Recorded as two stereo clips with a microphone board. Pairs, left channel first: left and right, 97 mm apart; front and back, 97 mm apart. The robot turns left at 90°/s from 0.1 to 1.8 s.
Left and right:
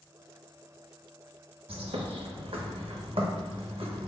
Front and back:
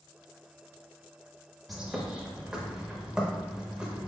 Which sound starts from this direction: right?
A bird, at 1.7 s.